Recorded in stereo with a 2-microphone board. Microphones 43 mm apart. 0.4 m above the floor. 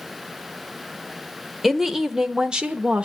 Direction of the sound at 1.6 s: Centre (ahead or behind).